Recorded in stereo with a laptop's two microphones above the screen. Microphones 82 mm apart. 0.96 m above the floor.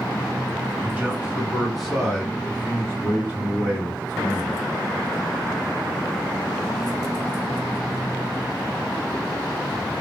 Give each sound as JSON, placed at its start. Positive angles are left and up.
{"t": 0.8, "sound": "a man speaking", "side_deg": -25, "distance_m": 1.1}